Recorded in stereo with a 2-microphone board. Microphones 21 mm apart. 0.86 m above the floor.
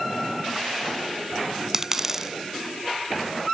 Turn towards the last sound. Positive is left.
turn(degrees=-20)  # may be behind; listen again after turning